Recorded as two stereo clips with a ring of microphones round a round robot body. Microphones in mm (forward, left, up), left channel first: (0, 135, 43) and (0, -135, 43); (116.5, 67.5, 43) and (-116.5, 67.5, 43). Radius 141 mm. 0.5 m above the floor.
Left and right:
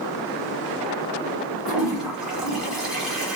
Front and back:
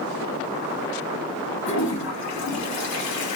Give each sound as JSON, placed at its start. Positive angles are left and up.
{"t": 1.6, "sound": "a toilet flushing", "azimuth_deg": -5, "distance_m": 1.3}